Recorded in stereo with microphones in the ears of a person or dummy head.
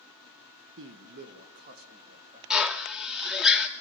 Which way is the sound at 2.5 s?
5° right (ahead or behind).